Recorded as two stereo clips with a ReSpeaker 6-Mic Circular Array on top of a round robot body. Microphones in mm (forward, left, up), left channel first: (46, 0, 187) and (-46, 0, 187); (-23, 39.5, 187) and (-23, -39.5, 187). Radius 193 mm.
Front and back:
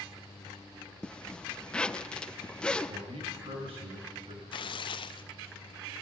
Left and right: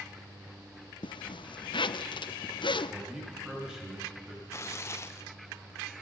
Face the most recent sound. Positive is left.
turn(degrees=35)